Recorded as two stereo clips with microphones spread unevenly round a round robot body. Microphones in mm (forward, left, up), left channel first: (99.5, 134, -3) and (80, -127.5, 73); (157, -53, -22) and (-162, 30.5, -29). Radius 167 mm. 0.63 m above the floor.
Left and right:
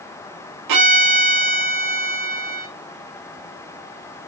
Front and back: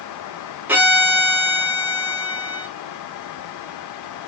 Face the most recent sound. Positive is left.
turn(degrees=-110)